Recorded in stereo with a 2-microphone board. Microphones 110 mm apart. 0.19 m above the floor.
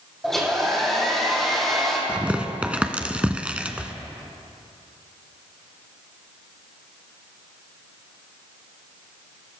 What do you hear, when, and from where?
0.2 s a hair dryer: 5° left (ahead or behind), 4 m
2.1 s tearing paper: 10° right (ahead or behind), 1.0 m